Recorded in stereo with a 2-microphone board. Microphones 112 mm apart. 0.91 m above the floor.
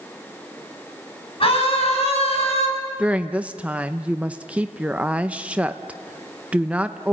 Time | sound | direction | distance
1.4 | a scream | 55° left (ahead or behind) | 6.5 m
3.0 | a woman speaking | 10° right (ahead or behind) | 0.8 m